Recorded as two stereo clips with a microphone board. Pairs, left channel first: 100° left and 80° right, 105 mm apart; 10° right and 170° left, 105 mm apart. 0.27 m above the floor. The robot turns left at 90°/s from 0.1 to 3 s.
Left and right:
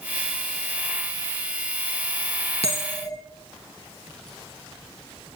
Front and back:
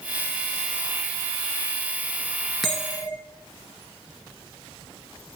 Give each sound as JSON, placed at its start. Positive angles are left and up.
{"t": 2.6, "sound": "a bell", "azimuth_deg": 80, "distance_m": 1.8}